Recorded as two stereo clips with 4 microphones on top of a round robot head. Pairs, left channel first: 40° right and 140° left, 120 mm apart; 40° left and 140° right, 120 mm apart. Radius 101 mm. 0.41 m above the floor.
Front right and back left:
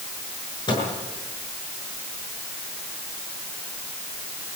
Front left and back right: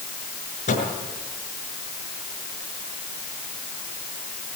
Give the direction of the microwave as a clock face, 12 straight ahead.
12 o'clock.